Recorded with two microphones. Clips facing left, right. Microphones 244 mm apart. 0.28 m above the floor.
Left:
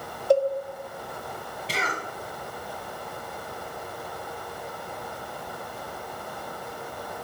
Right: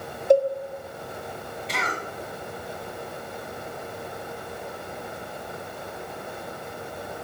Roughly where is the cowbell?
Centre.